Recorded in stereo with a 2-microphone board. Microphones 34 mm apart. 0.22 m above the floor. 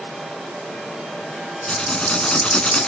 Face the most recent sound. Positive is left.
turn(degrees=30)  # may be behind; listen again after turning